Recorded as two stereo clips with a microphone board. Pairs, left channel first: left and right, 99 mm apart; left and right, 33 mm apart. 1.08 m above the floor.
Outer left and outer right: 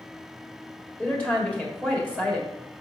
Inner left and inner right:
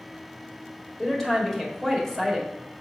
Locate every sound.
1.0 s a woman speaking: 15° left (ahead or behind), 1.9 m